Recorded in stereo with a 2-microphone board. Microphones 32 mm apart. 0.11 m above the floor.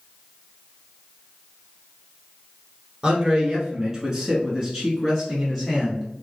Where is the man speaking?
20° right (ahead or behind), 1.4 m; by 6.1 s 5° left (ahead or behind), 1.5 m.